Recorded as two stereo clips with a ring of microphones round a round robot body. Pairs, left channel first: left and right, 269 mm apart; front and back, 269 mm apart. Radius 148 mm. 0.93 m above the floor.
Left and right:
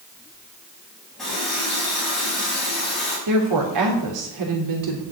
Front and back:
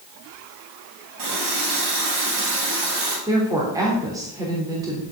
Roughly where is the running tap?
Behind.